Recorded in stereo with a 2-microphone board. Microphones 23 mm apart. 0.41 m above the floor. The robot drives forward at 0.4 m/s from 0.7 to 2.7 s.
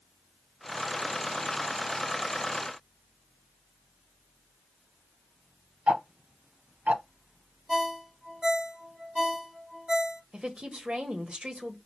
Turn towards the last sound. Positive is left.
turn(degrees=-55)  # may be behind; listen again after turning